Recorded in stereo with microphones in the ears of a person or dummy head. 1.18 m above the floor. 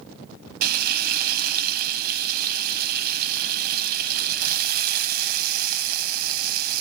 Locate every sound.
0.6 s frying: 60° right (ahead or behind), 0.7 m